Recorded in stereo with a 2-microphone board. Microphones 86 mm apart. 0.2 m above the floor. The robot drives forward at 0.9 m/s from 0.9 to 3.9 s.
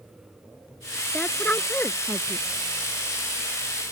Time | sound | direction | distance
1.1 | a woman speaking | 15° left (ahead or behind) | ?